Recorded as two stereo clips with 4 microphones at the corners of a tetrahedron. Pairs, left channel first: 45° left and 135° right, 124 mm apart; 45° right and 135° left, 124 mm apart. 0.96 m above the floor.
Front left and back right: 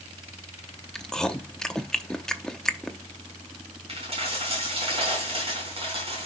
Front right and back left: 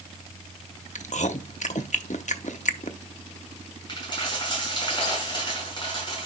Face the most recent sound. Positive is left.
turn(degrees=-95)